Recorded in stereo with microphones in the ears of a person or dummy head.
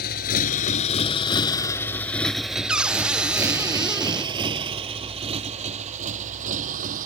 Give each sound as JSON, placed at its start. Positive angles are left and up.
{"t": 0.0, "sound": "a motorcycle", "side_deg": 55}
{"t": 2.7, "sound": "a cupboard door", "side_deg": 0}